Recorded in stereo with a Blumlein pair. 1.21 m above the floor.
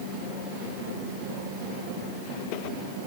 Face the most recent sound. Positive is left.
No sound to turn to.